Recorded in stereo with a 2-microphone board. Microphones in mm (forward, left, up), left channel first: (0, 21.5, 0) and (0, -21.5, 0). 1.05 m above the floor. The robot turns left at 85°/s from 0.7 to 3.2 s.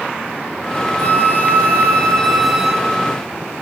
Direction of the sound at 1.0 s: 130° left.